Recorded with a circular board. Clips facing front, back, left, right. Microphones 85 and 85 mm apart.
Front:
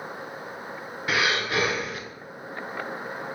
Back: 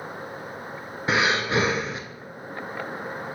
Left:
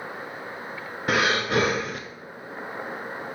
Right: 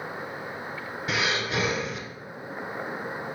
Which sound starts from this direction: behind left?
Breathing, at 1.1 s.